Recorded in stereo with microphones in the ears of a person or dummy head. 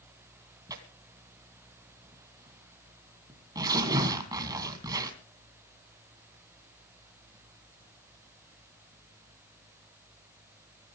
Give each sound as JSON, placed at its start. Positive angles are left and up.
{"t": 0.7, "sound": "tearing paper", "side_deg": -15, "distance_m": 3.0}